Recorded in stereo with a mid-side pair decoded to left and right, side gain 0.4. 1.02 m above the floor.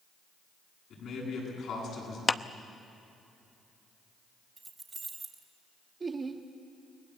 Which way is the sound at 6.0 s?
40° right.